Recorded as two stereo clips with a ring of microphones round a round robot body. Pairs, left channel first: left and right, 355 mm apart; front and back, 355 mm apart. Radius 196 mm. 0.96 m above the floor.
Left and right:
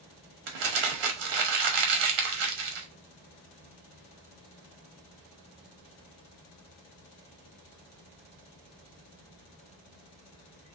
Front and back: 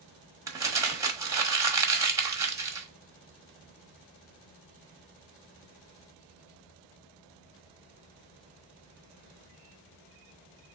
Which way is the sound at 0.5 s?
100° right.